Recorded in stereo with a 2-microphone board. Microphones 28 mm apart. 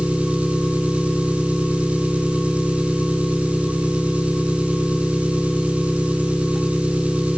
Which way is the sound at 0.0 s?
55° right (ahead or behind).